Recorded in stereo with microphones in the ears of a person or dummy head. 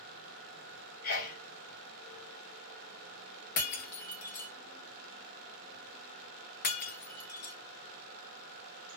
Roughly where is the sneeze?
Left.